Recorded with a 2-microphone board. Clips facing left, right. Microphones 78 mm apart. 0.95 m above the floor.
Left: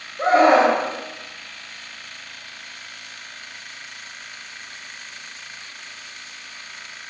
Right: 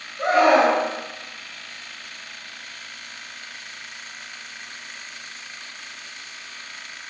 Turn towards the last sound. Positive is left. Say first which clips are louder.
# left 2 dB
turn(degrees=25)  # may be behind; listen again after turning